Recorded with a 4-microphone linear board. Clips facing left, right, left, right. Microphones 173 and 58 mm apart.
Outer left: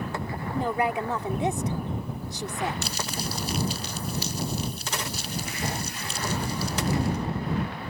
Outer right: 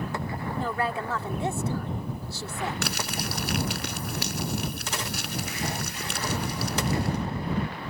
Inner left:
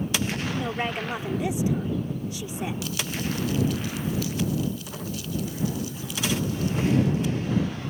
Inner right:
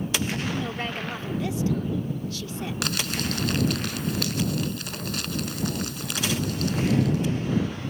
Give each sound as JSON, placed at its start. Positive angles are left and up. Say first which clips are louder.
{"t": 0.5, "sound": "a woman speaking", "louder": "outer left 4 dB, inner left 2 dB", "side_deg": 20}
{"t": 2.8, "sound": "crumpling", "louder": "outer right 1 dB, inner right 1 dB", "side_deg": -75}